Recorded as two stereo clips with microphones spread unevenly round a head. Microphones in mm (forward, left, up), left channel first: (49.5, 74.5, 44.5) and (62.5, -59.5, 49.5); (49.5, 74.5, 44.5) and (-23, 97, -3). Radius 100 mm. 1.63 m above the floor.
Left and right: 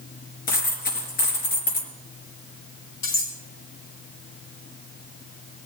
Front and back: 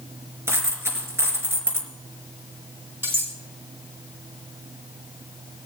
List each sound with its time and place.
0.5 s a dropped coin: 90° left, 3.5 m
3.0 s cutlery clinking: 95° left, 5 m